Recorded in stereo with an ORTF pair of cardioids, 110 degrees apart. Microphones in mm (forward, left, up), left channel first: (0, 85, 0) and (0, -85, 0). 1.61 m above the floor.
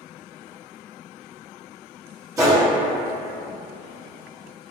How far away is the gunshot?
About 1.2 m.